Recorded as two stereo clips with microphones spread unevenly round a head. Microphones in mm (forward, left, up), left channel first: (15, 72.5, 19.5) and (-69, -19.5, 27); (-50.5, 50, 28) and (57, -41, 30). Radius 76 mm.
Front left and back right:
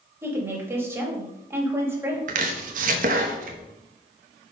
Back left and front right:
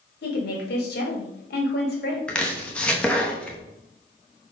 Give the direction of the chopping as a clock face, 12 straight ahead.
5 o'clock.